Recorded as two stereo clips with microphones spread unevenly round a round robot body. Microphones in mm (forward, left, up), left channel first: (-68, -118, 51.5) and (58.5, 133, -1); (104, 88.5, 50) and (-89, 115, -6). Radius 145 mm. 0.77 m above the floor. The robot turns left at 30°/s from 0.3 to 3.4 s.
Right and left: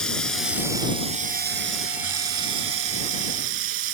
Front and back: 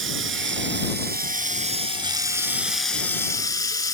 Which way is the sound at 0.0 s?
155° left.